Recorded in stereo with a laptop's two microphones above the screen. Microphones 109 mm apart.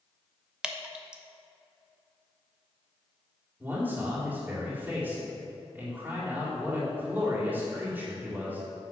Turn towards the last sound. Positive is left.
turn(degrees=-20)  # may be behind; listen again after turning